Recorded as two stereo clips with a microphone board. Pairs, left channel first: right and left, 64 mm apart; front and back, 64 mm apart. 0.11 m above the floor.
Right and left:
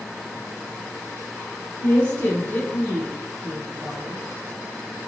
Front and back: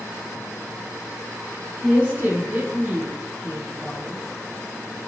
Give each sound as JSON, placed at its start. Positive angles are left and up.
{"t": 1.8, "sound": "a woman speaking", "azimuth_deg": -140, "distance_m": 2.0}